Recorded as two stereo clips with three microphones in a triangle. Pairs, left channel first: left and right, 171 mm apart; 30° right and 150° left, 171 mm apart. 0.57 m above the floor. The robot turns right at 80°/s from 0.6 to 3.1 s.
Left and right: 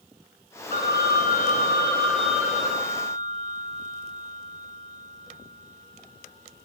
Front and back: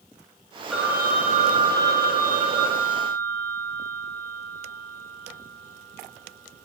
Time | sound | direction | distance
0.7 | a phone ringing | 60° left | 2 m